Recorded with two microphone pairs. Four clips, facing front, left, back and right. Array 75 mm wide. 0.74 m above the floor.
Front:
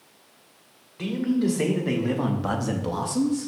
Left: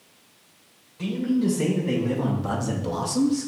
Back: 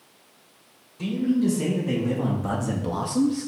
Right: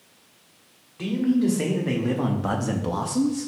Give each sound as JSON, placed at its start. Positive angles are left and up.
{"t": 1.0, "sound": "a man speaking", "azimuth_deg": -35, "distance_m": 1.6}